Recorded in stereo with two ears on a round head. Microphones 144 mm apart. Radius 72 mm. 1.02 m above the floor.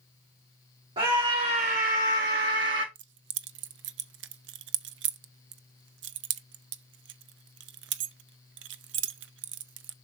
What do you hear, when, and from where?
1.0 s a scream: 30° right (ahead or behind), 2.0 m; by 2.9 s 80° right, 1.2 m
3.0 s keys jangling: 80° right, 0.6 m